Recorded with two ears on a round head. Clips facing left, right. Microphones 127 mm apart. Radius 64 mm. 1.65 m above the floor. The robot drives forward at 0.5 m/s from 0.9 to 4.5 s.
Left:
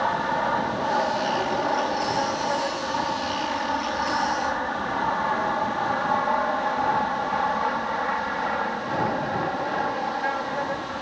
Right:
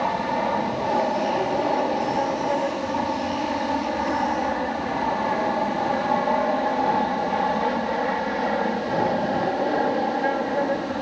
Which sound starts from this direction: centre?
An aircraft, at 0.0 s.